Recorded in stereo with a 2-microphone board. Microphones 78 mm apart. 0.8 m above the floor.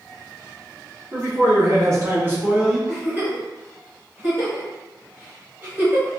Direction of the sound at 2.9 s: 30° right (ahead or behind).